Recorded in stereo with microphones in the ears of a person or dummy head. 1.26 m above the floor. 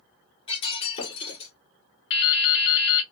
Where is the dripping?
55° left (ahead or behind), 0.9 m.